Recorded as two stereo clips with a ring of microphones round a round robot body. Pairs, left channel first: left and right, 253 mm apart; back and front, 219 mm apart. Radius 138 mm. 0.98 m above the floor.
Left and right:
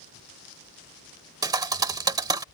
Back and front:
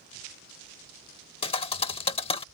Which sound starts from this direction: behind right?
A thud, at 1.4 s.